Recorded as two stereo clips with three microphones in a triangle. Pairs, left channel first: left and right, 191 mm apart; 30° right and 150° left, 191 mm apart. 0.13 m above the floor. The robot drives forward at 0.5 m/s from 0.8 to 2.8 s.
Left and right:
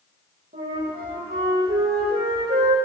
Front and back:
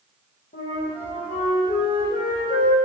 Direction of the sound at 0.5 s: 55° right.